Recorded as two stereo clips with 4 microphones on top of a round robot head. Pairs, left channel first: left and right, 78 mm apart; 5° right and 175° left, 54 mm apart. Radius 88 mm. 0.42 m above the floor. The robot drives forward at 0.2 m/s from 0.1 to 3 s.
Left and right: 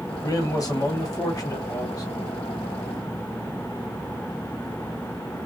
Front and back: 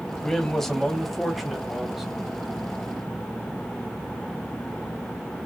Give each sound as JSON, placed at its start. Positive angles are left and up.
{"t": 0.2, "sound": "a man speaking", "azimuth_deg": 70, "distance_m": 1.4}